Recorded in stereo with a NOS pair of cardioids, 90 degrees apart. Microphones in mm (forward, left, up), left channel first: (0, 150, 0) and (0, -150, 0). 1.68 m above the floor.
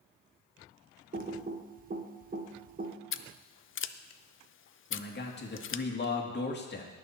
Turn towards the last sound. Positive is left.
turn(degrees=35)